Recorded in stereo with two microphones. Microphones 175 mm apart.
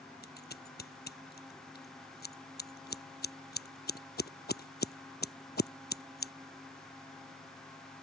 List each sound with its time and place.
0.2 s scissors: 70° left (ahead or behind)